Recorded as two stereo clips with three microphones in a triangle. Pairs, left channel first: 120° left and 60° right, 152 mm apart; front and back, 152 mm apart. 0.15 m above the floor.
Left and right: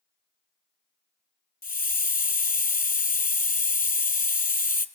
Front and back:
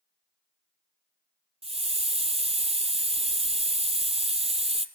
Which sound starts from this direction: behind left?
A hiss, at 1.6 s.